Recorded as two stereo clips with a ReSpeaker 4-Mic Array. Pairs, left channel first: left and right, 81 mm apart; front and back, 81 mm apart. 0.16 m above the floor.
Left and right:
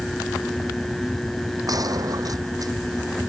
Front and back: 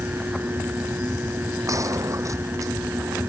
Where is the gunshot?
130° right.